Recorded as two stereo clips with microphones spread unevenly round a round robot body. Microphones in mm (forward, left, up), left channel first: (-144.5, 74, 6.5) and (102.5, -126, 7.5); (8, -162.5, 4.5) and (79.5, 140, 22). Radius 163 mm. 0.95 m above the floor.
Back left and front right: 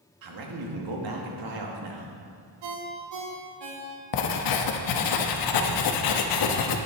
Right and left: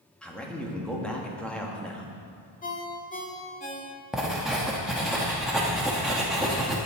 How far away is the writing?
About 0.9 m.